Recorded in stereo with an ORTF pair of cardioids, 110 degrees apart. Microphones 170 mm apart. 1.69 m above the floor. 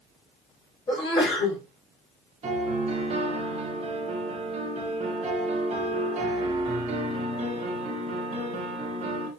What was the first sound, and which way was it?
A sneeze, 30° left.